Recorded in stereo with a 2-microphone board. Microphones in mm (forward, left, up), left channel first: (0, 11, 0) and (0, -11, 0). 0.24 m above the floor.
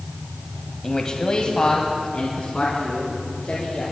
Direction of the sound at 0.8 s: 15° left (ahead or behind).